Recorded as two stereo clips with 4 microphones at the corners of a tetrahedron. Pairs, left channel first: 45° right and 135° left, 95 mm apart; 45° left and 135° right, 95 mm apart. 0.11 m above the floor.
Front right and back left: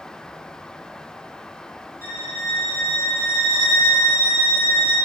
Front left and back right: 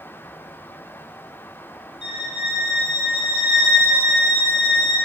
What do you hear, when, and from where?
2.0 s a violin: 50° right, 1.8 m